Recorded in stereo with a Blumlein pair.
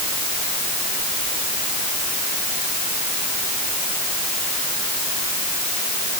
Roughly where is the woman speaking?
I don't hear a woman speaking.